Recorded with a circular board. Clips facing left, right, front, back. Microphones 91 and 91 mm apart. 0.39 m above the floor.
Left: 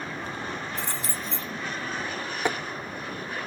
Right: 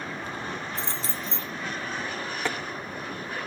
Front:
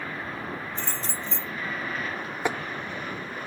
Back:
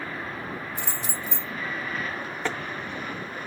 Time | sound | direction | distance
0.8 | keys jangling | 110° right | 0.9 m
2.5 | tapping | 55° left | 0.6 m